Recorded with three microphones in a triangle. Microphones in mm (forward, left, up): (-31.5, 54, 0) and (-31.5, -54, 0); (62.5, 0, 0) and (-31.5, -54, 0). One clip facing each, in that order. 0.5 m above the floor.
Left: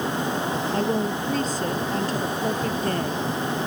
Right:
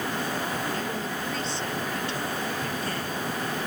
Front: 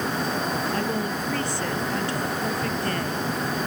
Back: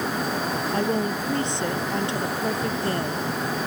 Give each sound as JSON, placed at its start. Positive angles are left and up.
{"t": 0.7, "sound": "a woman speaking", "azimuth_deg": 140}